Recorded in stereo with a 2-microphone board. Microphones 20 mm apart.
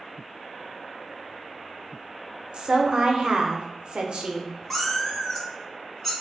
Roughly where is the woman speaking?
Right.